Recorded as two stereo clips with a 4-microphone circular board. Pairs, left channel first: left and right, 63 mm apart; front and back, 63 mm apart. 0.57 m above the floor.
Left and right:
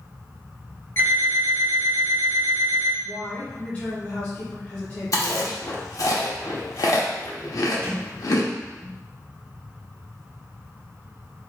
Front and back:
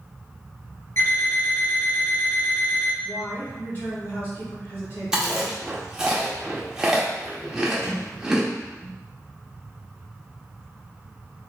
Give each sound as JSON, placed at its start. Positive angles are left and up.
{"t": 1.0, "sound": "an alarm clock", "azimuth_deg": 35, "distance_m": 2.0}
{"t": 3.0, "sound": "a woman speaking", "azimuth_deg": 30, "distance_m": 1.0}
{"t": 5.1, "sound": "chewing", "azimuth_deg": 100, "distance_m": 0.8}
{"t": 7.8, "sound": "a sliding door", "azimuth_deg": -40, "distance_m": 1.7}